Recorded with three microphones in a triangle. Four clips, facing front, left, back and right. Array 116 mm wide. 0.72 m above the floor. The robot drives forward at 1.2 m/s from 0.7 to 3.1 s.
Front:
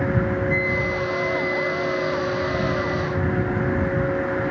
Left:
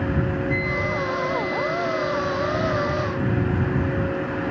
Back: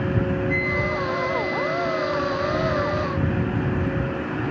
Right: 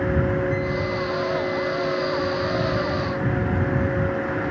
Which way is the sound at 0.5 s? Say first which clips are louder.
Right 1 dB, front 1 dB; 170° left.